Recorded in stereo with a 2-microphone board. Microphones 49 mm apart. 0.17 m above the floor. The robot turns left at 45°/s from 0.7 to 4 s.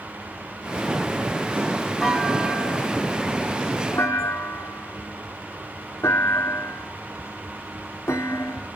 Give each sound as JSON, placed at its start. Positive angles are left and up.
{"t": 2.0, "sound": "a clunk", "side_deg": -5, "distance_m": 7.0}